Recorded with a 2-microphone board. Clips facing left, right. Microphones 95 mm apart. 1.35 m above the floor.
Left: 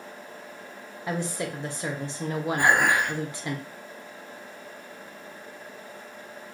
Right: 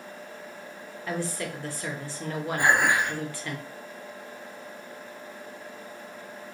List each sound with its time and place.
1.1 s a woman speaking: 20° left (ahead or behind), 0.6 m
2.6 s dishes clattering: 75° left (ahead or behind), 1.5 m